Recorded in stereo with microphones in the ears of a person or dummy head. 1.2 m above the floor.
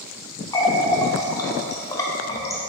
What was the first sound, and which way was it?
A running tap, 20° left (ahead or behind).